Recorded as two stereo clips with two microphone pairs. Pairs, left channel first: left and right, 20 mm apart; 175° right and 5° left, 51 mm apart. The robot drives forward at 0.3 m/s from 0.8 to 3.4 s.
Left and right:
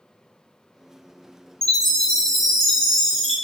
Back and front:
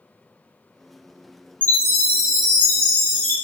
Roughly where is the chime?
Behind left.